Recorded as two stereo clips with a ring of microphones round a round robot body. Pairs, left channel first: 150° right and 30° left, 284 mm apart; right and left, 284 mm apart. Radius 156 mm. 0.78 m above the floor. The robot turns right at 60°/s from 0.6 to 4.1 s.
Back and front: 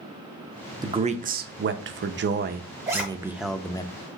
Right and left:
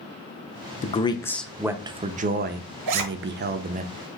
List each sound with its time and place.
0.8 s a man speaking: 40° right, 0.6 m; by 3.9 s 145° left, 0.6 m
2.9 s a zipper: 105° left, 0.8 m; by 3.0 s 120° left, 0.8 m